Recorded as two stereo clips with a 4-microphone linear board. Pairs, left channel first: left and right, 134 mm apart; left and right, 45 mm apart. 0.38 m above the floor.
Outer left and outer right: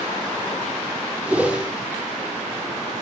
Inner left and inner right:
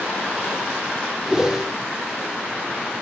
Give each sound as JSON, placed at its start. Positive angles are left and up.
{"t": 1.2, "sound": "a whoosh", "side_deg": -10, "distance_m": 4.0}